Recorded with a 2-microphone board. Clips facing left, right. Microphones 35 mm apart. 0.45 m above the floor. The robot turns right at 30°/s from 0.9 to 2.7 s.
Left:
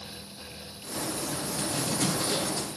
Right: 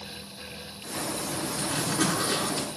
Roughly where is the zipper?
Right.